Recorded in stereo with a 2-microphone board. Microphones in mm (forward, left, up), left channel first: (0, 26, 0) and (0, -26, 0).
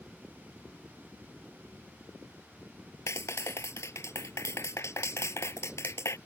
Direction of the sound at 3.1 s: 65° left (ahead or behind).